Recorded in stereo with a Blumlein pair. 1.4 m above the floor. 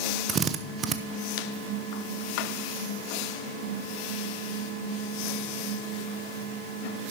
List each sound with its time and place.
0.3 s a drill: 25° right, 0.8 m